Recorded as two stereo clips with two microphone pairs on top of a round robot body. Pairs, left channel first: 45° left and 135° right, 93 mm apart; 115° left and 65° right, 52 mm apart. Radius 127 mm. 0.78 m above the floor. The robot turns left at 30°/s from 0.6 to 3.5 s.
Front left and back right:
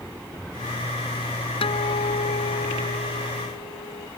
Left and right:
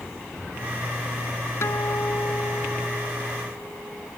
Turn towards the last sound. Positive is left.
turn(degrees=15)